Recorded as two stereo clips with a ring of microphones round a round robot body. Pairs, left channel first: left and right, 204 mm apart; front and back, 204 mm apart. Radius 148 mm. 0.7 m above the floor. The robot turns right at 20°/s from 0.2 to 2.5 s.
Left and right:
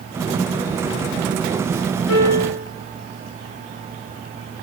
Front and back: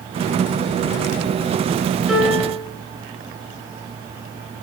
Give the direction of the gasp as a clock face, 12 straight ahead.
No gasp in this recording.